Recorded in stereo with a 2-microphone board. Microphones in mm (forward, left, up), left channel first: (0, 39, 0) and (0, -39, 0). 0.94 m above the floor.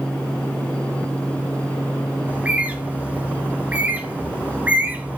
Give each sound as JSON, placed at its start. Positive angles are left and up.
{"t": 2.3, "sound": "a bird", "side_deg": -20, "distance_m": 0.8}